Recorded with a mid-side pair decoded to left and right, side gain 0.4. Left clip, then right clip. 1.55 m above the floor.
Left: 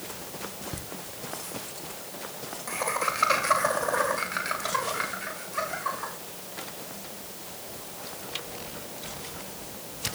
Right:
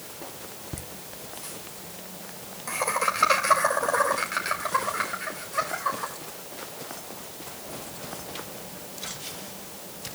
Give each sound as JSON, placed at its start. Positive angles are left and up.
{"t": 0.7, "sound": "laughter", "azimuth_deg": -20, "distance_m": 1.0}